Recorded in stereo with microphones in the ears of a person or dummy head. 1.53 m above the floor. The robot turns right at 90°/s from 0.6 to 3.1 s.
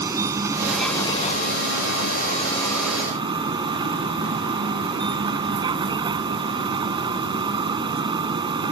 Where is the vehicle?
20° right; by 8.7 s 155° right.